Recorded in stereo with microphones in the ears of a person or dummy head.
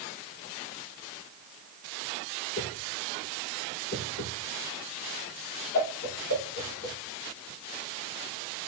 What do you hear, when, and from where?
2.6 s a whoosh: 45° left (ahead or behind), 5 m